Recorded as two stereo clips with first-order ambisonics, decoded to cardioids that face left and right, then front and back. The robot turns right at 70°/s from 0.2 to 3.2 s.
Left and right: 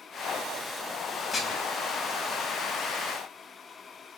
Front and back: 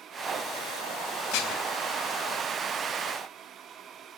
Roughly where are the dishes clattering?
Ahead.